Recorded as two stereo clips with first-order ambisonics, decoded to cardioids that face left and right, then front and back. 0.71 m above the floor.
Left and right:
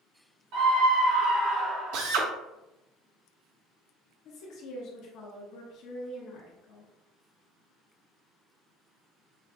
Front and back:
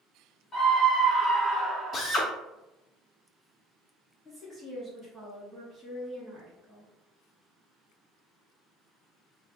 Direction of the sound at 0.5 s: 75° right.